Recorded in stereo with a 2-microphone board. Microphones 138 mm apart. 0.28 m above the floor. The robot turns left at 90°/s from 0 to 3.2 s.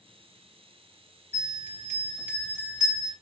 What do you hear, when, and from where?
1.3 s a bell: 130° left, 2.0 m; by 3.1 s 30° right, 2.0 m